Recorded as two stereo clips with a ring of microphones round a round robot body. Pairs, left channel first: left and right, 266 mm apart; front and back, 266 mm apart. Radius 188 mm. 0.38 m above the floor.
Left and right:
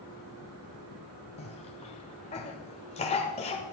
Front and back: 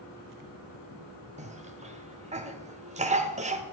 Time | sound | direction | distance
1.4 | a cough | 140° left | 1.1 m